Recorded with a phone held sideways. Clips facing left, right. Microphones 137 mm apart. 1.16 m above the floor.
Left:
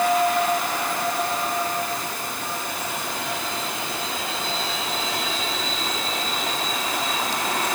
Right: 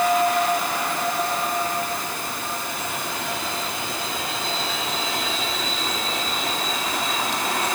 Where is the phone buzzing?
No phone buzzing in this recording.